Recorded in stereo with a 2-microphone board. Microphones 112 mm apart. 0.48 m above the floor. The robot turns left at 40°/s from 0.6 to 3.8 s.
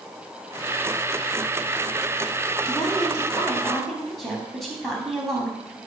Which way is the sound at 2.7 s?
45° left.